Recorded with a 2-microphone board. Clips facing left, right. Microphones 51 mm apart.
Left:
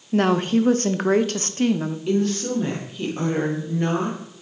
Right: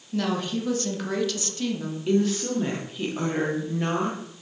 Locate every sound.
0.1 s a woman speaking: 40° left (ahead or behind), 0.7 m
2.1 s a woman speaking: 5° right (ahead or behind), 1.7 m